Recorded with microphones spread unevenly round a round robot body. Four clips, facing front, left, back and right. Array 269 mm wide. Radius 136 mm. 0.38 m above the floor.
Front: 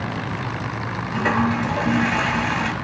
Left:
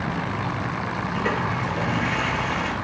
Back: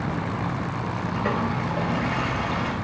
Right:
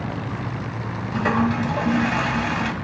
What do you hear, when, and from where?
1.1 s a toilet flushing: 50° right, 0.5 m